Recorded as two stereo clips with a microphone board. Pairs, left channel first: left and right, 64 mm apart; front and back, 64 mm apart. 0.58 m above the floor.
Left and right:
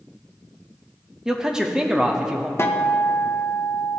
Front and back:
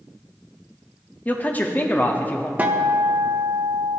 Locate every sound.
1.2 s a man speaking: 20° right, 0.6 m
2.6 s a guitar: 120° left, 0.6 m